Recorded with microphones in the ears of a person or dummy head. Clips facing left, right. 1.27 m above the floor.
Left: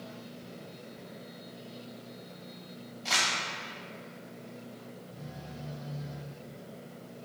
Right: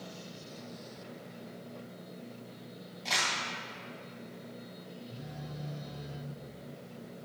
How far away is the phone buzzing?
About 4 m.